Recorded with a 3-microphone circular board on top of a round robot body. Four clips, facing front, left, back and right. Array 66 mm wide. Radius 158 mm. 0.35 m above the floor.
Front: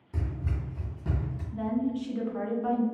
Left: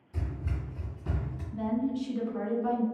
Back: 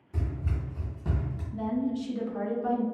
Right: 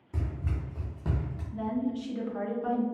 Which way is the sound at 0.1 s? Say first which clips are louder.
Right 1 dB, even; 50° right.